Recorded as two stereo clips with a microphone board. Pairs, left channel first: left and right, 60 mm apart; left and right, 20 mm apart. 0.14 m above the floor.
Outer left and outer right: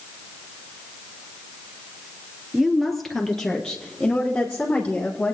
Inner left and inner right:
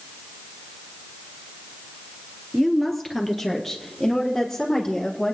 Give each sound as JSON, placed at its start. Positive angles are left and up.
{"t": 2.5, "sound": "a woman speaking", "side_deg": 0, "distance_m": 1.7}